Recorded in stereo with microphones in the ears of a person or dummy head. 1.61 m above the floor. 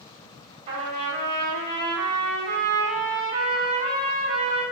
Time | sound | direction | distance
0.7 | a trumpet | 35° right (ahead or behind) | 1.5 m